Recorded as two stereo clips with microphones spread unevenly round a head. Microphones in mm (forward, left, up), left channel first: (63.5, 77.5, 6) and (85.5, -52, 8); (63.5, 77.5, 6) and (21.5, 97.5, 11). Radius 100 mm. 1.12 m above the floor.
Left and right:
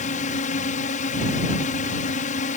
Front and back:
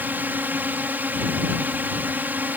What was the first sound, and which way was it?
A drone, 115° left.